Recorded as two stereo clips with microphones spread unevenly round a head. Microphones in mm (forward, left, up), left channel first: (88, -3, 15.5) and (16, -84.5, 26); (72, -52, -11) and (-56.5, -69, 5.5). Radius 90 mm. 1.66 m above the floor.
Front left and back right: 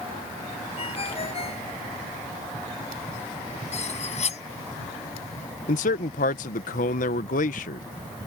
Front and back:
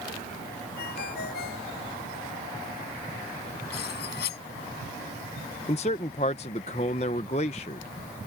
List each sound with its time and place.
0.8 s a ringtone: 15° left
3.7 s cutlery clinking: 25° left
5.7 s a man speaking: 65° left